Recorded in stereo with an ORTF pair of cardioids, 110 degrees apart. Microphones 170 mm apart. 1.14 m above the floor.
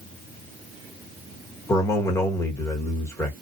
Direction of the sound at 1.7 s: 20° left.